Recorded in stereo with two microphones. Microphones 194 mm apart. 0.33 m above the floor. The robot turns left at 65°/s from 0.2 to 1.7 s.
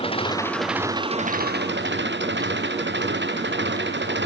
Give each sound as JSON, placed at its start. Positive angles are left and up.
{"t": 0.0, "sound": "an engine running", "azimuth_deg": 30}